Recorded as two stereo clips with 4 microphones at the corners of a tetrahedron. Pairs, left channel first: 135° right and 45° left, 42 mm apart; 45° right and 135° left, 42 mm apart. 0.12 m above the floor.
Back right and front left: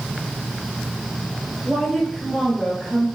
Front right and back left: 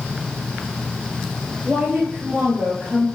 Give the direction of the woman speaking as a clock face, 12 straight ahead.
8 o'clock.